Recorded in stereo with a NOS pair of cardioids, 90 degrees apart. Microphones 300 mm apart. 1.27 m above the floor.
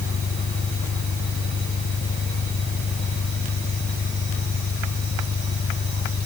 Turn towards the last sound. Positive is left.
turn(degrees=40)